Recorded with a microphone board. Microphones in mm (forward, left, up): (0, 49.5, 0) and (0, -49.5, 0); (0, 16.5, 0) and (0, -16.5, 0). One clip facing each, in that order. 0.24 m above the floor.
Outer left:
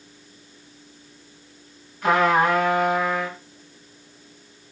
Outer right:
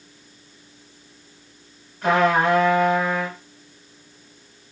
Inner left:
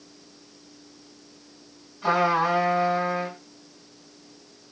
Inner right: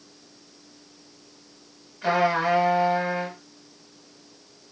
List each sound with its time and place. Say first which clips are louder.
2.0 s a trumpet: even, even; 65° right (ahead or behind), 2 m